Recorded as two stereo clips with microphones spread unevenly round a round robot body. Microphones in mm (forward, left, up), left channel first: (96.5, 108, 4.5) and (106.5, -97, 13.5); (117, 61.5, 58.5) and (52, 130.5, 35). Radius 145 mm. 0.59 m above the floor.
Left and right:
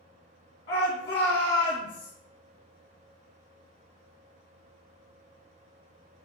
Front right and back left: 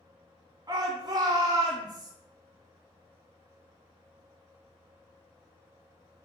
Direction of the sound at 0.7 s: 145° left.